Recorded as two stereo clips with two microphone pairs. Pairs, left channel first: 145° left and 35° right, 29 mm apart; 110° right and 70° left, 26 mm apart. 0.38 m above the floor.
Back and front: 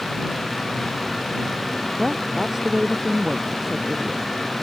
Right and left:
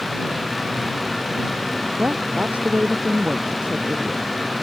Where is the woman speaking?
50° left.